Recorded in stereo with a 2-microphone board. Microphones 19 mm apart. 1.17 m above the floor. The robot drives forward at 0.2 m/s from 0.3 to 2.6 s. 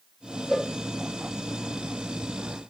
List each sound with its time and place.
0.5 s a cowbell: 10° left (ahead or behind), 2 m